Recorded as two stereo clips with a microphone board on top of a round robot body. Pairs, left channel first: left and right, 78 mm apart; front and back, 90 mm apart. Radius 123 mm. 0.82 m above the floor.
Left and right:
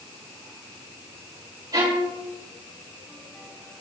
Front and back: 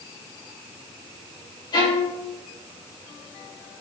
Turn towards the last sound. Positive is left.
turn(degrees=-45)